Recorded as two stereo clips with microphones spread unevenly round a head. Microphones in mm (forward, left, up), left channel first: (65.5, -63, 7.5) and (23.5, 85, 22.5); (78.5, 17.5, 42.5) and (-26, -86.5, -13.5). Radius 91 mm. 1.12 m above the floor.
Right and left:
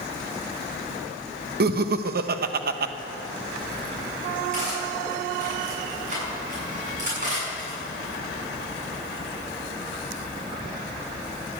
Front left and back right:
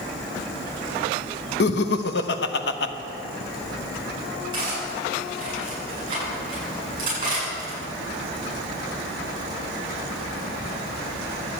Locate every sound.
1.6 s laughter: 85° left, 1.0 m
4.5 s cutlery clinking: 160° left, 7.5 m